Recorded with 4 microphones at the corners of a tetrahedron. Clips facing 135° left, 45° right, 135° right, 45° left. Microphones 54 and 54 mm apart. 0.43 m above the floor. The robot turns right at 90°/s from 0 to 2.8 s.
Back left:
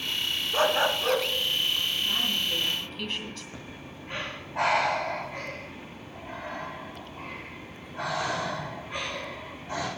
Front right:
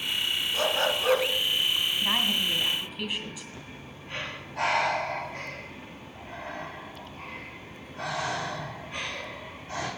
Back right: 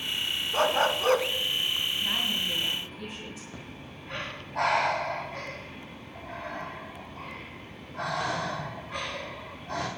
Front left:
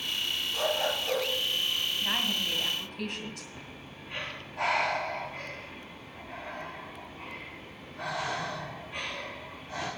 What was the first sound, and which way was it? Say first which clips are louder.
A dog barking: back left 4 dB, back right 6 dB; straight behind.